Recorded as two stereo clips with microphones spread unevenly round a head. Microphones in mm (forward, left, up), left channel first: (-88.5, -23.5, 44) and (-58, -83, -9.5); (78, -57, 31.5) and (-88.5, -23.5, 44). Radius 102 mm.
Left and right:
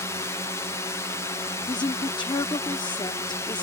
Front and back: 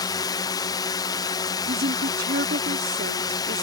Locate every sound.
0.0 s a drone: 10° left
1.7 s a woman speaking: 130° left